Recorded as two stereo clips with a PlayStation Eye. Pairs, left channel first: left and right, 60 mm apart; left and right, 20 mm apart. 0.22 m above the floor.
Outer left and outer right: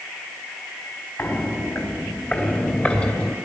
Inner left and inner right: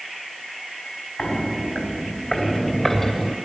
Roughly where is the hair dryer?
I don't hear a hair dryer.